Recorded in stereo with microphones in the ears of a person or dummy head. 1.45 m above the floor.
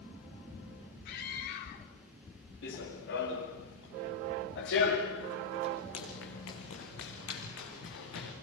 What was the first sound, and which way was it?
A scream, 55° left (ahead or behind).